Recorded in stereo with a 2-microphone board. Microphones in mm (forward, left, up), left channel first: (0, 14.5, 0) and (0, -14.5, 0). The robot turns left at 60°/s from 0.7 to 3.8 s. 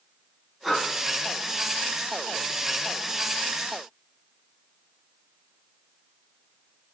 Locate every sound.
0.6 s breathing: centre (ahead or behind), 2 m; by 0.8 s 10° right (ahead or behind), 2 m